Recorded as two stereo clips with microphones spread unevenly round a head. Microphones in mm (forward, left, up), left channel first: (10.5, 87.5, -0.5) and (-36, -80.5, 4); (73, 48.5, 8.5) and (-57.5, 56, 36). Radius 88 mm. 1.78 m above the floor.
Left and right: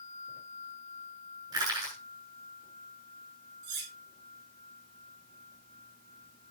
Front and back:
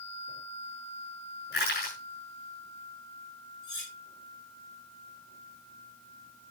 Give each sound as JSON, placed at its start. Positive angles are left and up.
{"t": 1.5, "sound": "crushing", "azimuth_deg": -35, "distance_m": 8.0}
{"t": 3.6, "sound": "cutlery clinking", "azimuth_deg": -70, "distance_m": 5.5}